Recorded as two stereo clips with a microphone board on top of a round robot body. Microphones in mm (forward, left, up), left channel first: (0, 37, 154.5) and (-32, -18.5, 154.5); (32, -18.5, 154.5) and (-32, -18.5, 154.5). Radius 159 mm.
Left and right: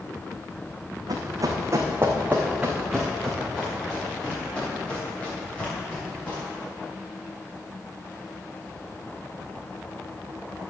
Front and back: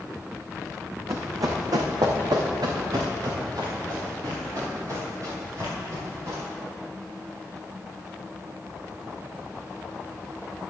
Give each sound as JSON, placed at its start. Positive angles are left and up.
{"t": 1.1, "sound": "running footsteps", "azimuth_deg": -140, "distance_m": 1.6}